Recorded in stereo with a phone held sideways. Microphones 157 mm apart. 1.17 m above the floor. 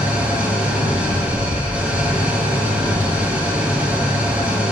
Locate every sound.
0.0 s an engine running: 10° right (ahead or behind), 1.1 m